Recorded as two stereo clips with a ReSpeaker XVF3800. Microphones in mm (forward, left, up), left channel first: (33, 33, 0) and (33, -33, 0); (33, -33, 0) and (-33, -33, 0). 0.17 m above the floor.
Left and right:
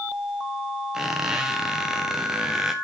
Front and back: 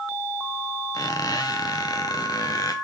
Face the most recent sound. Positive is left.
turn(degrees=-5)